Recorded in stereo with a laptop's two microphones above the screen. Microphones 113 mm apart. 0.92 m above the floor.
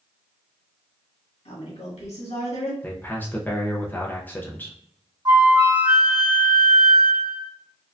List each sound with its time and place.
1.4 s a woman speaking: 70° left (ahead or behind), 1.7 m
2.8 s a man speaking: 15° left (ahead or behind), 0.5 m
5.2 s a flute: 40° right (ahead or behind), 2 m